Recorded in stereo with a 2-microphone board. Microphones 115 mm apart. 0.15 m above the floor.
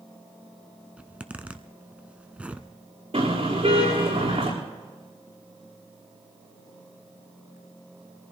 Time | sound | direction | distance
1.0 | a zipper | 10° right (ahead or behind) | 0.8 m
3.1 | a car horn | 50° right (ahead or behind) | 7.5 m